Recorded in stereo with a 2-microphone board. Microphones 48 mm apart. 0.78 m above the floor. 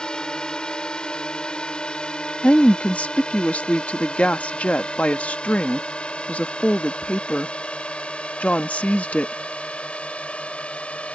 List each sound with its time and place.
0.0 s a drone: 20° left (ahead or behind); by 11.2 s 30° left (ahead or behind)
2.4 s a woman speaking: 30° left (ahead or behind)